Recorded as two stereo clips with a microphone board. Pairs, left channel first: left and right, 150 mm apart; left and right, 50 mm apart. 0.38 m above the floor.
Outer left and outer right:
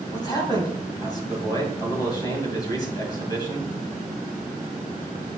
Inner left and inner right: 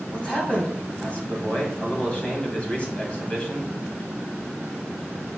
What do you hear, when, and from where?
0.1 s a man speaking: 25° left (ahead or behind), 3 m